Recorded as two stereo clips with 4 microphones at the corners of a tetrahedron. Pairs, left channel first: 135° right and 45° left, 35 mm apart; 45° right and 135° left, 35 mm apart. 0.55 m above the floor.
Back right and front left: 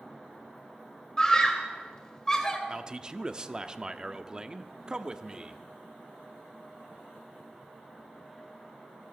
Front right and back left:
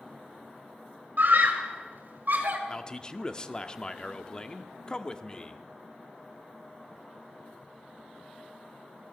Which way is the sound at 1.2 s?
150° left.